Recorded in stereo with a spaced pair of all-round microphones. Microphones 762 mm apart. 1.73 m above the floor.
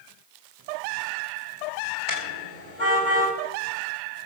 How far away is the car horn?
About 5 m.